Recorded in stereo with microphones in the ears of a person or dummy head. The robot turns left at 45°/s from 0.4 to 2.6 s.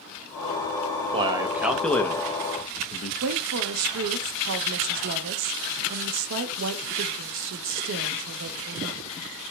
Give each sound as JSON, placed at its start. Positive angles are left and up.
{"t": 1.1, "sound": "a man speaking", "side_deg": -30, "distance_m": 0.6}
{"t": 3.2, "sound": "a woman speaking", "side_deg": -70, "distance_m": 0.6}